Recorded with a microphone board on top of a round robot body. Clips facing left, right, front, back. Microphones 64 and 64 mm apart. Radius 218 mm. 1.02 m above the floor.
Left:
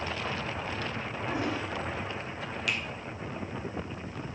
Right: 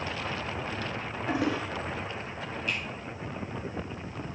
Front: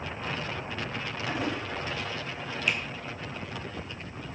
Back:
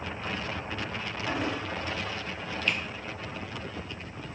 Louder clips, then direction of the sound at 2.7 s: Left 1 dB, front 1 dB; 80° left.